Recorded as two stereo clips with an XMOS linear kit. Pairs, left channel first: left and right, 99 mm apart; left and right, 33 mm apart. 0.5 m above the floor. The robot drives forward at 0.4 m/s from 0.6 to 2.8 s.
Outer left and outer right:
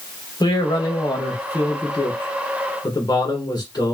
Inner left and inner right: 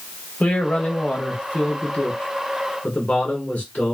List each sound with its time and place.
0.4 s a man speaking: 45° left (ahead or behind), 1.4 m; by 3.9 s 40° left (ahead or behind), 1.6 m